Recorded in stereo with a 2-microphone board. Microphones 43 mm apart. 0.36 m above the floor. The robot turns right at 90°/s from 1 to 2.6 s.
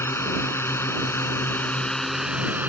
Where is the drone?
65° left (ahead or behind); by 2.7 s 40° right (ahead or behind).